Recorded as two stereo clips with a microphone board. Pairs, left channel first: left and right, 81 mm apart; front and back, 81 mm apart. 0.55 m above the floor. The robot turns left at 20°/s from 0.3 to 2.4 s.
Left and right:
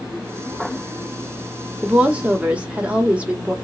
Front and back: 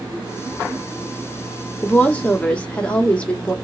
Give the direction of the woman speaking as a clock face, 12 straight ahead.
1 o'clock.